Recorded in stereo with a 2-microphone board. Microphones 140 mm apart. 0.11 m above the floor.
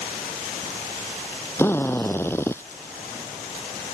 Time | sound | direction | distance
1.6 | a drill | 15° left (ahead or behind) | ?